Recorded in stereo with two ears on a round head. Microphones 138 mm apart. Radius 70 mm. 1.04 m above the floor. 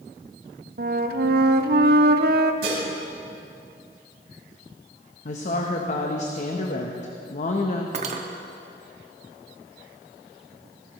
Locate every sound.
0.8 s a flute: 70° right (ahead or behind), 0.8 m
2.6 s dishes clattering: 70° right (ahead or behind), 5 m
5.2 s a woman speaking: 50° left (ahead or behind), 1.0 m
7.9 s cutlery clinking: 50° right (ahead or behind), 1.1 m